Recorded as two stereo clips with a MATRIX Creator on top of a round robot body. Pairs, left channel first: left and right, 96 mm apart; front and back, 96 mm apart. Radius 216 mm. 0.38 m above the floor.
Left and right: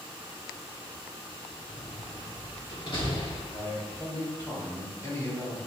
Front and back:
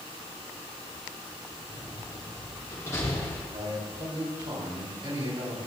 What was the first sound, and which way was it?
A door slam, 60° left.